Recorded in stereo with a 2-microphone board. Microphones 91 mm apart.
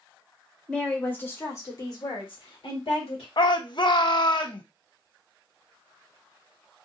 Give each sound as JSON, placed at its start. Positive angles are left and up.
{"t": 0.7, "sound": "a woman speaking", "side_deg": 10, "distance_m": 1.4}
{"t": 3.4, "sound": "a shout", "side_deg": 55, "distance_m": 0.6}